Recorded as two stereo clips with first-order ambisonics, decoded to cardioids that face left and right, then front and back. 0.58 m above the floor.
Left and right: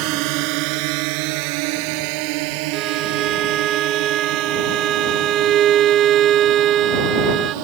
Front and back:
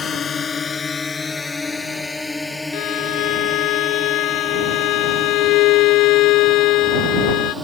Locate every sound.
0.0 s a drone: 70° right; by 7.7 s 100° right
2.7 s a violin: 35° right